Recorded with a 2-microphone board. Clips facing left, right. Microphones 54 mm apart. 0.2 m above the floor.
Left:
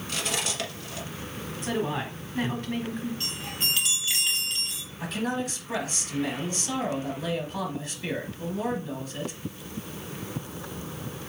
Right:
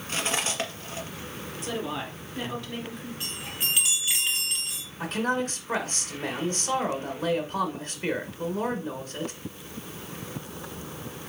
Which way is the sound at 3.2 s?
10° right (ahead or behind).